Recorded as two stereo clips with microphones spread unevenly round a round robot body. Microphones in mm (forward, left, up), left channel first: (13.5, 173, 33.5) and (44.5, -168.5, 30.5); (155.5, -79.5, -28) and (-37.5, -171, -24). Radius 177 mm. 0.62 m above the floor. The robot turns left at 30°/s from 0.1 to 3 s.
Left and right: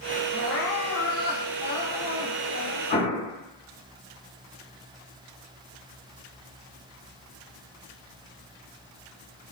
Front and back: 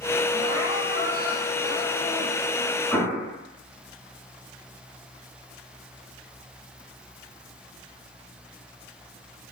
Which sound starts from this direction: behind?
Crying, at 0.3 s.